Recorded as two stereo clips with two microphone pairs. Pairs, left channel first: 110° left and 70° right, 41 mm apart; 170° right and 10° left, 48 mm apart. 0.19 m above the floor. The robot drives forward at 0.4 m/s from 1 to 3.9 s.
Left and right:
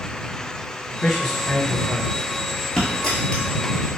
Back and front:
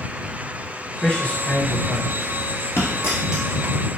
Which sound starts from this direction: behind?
A dropped coin, at 2.8 s.